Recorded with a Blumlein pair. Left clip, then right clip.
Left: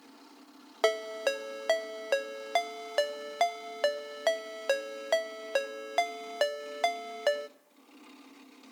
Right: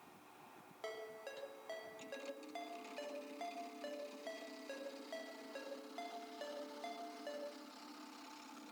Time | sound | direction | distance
0.8 | a ringtone | 50° left | 0.5 m